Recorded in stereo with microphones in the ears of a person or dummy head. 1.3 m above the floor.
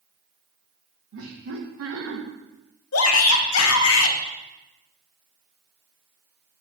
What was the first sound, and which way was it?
Laughter, 80° right.